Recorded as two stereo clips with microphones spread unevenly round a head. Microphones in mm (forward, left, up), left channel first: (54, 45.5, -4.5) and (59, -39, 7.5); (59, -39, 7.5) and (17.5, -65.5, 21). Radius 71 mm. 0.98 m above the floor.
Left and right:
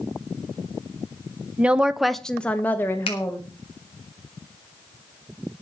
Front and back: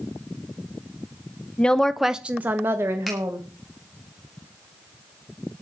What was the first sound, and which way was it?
A woman speaking, 5° right.